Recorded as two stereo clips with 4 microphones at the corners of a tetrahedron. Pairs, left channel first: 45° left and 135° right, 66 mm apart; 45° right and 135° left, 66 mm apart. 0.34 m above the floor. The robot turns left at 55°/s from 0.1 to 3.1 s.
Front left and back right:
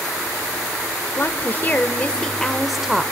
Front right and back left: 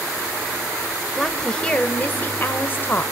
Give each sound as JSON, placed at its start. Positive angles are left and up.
{"t": 1.2, "sound": "a woman speaking", "azimuth_deg": 40, "distance_m": 1.2}